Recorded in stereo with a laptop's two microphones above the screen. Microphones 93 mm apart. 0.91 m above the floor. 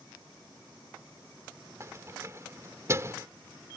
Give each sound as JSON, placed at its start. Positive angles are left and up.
{"t": 1.8, "sound": "keys jangling", "side_deg": -30}